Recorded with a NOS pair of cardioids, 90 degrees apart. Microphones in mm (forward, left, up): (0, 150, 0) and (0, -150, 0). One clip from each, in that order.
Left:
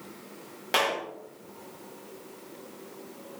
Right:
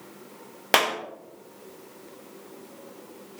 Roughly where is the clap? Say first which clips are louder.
Right 4 dB; ahead right.